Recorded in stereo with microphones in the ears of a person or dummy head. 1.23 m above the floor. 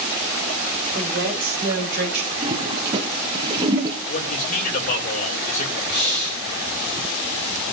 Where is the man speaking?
45° left (ahead or behind), 3 m.